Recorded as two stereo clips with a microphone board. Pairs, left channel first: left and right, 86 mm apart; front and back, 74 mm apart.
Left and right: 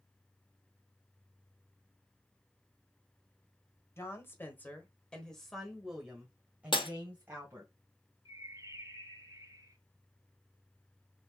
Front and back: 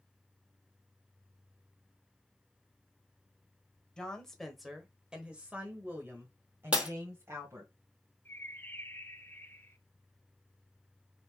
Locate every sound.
4.0 s a woman speaking: 70° left, 1.5 m; by 7.7 s 145° right, 2 m
6.7 s breaking glass: 105° left, 1.2 m
8.2 s a bird: 55° right, 0.8 m